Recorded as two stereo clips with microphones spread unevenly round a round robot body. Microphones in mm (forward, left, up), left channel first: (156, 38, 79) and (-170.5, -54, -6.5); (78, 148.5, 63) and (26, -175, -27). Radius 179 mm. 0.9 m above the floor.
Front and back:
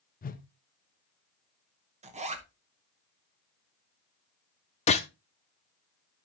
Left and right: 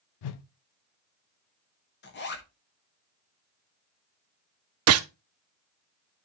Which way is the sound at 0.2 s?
90° left.